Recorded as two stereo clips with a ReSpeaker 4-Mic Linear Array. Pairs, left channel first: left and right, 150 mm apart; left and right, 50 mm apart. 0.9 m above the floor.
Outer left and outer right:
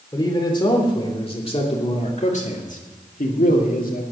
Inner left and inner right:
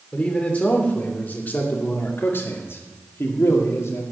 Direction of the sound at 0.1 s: 25° left (ahead or behind).